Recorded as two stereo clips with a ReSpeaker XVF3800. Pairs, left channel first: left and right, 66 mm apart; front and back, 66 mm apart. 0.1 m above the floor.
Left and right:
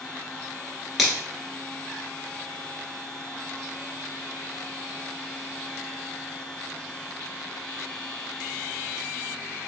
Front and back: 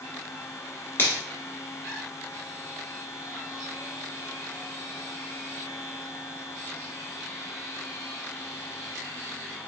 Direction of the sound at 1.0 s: Straight ahead.